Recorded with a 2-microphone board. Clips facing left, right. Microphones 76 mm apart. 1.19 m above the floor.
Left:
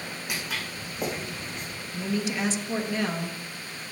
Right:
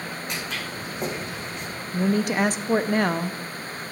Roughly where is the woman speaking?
Right.